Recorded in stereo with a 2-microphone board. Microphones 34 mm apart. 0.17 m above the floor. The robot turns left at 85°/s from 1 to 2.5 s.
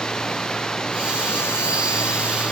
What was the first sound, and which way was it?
Running water, 160° left.